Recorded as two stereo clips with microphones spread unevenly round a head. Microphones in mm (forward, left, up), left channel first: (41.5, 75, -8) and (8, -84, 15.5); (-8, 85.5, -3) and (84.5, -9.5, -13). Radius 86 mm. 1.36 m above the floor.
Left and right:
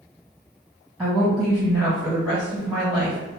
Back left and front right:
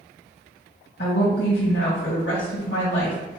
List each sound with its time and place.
1.0 s a woman speaking: 170° left, 1.0 m